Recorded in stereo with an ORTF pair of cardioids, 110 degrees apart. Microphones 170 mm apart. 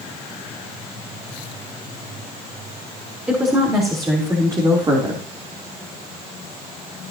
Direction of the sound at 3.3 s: 15° right.